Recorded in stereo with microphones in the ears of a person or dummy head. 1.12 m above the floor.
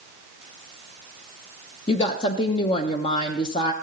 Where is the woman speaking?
30° left (ahead or behind), 0.8 m.